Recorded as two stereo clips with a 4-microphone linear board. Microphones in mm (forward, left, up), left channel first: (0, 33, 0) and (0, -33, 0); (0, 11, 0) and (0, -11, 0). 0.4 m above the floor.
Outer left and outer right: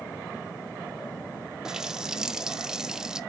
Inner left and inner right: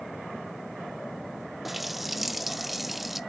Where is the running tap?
10° right (ahead or behind), 0.7 m.